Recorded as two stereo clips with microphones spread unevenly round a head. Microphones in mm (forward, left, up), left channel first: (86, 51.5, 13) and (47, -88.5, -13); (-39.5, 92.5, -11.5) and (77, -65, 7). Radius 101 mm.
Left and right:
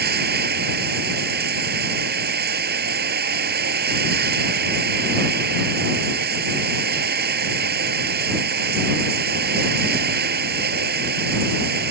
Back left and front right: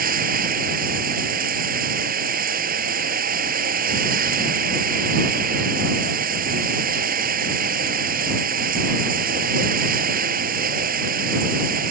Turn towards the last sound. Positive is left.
turn(degrees=-100)